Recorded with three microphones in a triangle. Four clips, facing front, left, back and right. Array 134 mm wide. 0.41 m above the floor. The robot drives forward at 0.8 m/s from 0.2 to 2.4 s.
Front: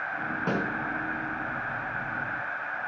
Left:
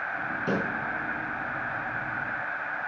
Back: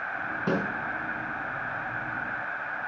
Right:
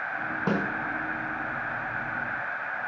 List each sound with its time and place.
0.5 s a snare drum: 90° right, 4.5 m; by 0.6 s 95° right, 4.5 m